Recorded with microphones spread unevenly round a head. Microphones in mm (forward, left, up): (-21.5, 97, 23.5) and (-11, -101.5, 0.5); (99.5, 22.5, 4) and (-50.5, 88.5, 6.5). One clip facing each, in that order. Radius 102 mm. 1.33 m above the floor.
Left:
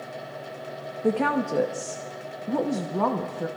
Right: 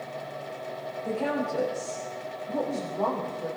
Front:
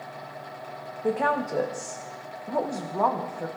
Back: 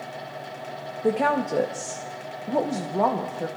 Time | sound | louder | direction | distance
1.0 | a woman speaking | left 5 dB, back 3 dB | 90° left | 1.1 m